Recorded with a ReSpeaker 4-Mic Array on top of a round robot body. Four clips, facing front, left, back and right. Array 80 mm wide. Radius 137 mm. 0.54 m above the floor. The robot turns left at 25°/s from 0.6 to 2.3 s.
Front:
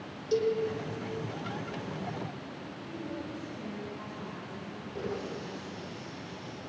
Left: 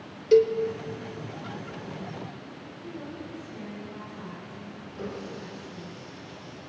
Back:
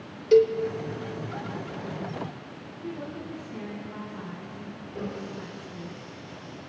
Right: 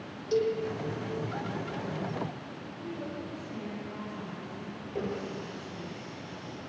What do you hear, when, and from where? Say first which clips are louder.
0.3 s a cowbell: left 9 dB, back 10 dB; 130° left, 2.5 m
2.8 s a woman speaking: right 1 dB, back 4 dB; 170° right, 8 m
5.0 s a running tap: right 3 dB, back 1 dB; 100° right, 10 m